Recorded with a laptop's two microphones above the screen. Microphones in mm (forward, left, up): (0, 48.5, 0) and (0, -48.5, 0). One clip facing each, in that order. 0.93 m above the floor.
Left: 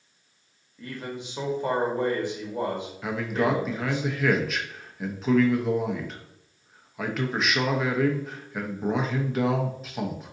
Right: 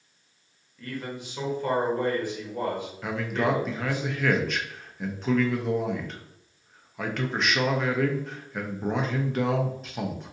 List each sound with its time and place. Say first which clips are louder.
0.8 s a man speaking: even; 20° left (ahead or behind), 1.1 m
3.0 s a man speaking: left 1 dB; centre (ahead or behind), 0.7 m